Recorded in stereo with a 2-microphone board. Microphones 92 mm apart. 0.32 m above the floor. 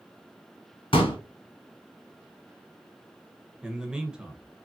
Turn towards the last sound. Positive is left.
turn(degrees=-10)  # may be behind; listen again after turning